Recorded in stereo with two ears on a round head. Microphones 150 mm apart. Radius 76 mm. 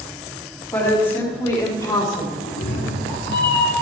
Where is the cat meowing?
70° left (ahead or behind), 1.7 m.